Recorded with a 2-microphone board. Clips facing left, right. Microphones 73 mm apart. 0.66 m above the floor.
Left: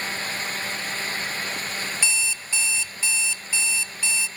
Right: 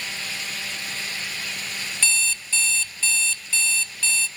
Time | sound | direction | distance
2.0 | an alarm clock | 15° left (ahead or behind) | 0.7 m